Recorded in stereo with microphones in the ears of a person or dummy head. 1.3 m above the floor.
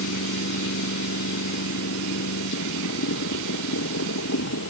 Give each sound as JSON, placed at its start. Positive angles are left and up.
{"t": 0.0, "sound": "a machine running", "side_deg": 70}